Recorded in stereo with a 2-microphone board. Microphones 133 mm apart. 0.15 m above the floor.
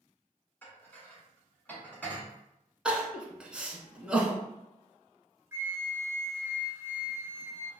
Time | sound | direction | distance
0.6 | dishes clattering | 10° left (ahead or behind) | 1.0 m
2.9 | crying | 5° right (ahead or behind) | 0.7 m
5.5 | a flute | 20° right (ahead or behind) | 0.6 m